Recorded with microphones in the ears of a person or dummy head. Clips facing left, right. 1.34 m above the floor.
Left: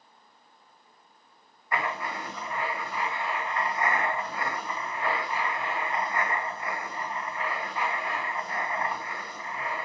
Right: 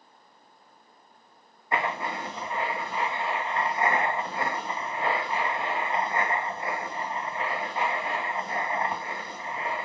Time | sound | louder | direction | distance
1.7 | writing | right 2 dB | 25° right (ahead or behind) | 1.6 m